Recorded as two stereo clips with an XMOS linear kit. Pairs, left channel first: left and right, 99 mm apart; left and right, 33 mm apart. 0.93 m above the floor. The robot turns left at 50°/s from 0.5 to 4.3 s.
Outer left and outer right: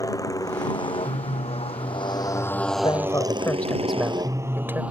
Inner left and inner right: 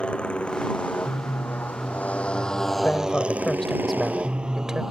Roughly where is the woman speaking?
Ahead left.